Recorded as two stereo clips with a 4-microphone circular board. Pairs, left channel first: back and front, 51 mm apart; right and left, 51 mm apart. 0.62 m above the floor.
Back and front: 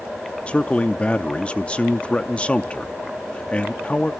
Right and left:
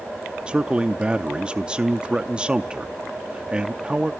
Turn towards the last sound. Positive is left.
turn(degrees=145)